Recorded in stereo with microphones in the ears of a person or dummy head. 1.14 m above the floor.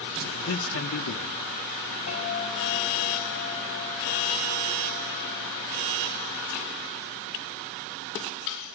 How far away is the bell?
About 8 m.